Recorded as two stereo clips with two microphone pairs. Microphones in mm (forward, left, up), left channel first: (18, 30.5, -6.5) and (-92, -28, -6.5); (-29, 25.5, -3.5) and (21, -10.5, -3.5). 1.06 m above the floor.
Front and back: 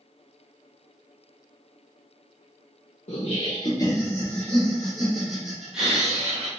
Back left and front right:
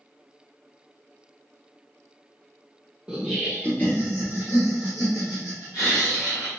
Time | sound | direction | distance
3.1 | laughter | 40° left | 0.5 m